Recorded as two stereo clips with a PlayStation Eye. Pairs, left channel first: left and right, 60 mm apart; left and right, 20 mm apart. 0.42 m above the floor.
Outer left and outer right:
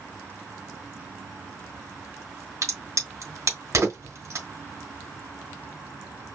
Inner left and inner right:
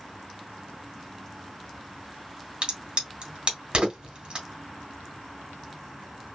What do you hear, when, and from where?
2.6 s a crack: 60° right (ahead or behind), 2.5 m